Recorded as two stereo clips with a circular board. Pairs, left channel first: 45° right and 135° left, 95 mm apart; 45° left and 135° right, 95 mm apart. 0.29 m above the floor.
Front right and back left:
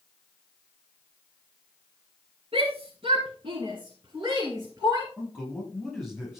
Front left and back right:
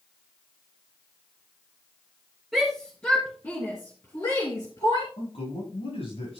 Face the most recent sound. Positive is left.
turn(degrees=45)